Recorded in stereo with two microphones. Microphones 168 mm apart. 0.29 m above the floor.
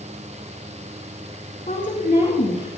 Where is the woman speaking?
50° left (ahead or behind), 3 m; by 2.7 s 45° left (ahead or behind), 4 m.